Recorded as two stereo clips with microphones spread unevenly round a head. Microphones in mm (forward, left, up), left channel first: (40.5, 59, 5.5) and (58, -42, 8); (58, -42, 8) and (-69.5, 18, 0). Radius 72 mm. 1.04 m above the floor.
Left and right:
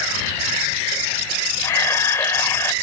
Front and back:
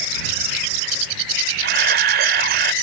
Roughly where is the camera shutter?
Behind.